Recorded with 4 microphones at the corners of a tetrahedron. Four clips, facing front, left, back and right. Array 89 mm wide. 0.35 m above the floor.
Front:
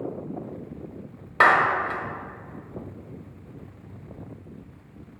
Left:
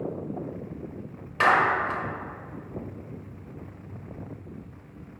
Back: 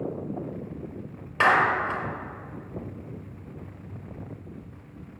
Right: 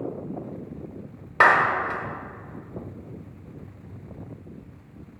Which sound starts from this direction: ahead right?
A clap, at 1.4 s.